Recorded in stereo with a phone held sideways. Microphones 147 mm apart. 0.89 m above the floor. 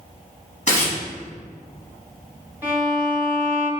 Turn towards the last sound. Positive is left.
turn(degrees=-15)  # may be behind; listen again after turning